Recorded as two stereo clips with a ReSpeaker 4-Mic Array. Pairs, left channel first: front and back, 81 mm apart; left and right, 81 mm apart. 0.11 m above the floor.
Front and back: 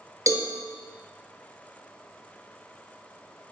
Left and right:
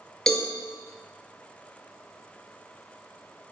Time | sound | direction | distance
0.3 | a cowbell | 170° left | 0.9 m